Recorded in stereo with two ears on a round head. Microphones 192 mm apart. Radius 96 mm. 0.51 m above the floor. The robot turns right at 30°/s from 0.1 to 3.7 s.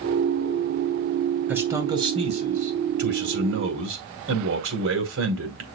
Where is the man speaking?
170° right, 2.5 m; by 5.7 s 105° right, 2.5 m.